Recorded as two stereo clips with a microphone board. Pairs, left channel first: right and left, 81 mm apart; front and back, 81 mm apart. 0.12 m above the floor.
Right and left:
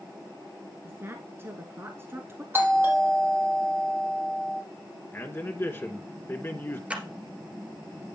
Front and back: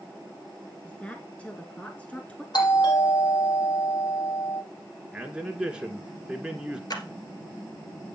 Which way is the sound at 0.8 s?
60° left.